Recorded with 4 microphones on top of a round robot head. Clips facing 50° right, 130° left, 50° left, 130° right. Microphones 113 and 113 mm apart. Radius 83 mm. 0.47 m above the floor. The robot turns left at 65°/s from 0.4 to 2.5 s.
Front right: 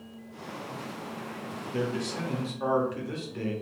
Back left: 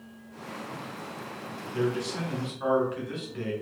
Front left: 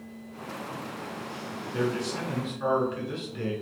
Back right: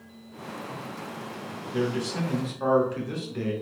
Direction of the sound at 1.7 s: 45° right.